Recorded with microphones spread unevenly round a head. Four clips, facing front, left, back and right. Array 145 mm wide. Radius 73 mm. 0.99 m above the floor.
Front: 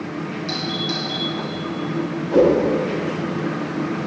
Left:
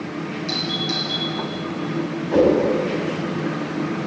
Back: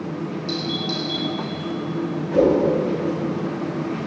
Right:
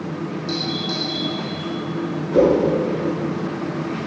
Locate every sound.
0.5 s a doorbell: 45° left, 5.5 m
2.3 s a whoosh: 65° left, 5.5 m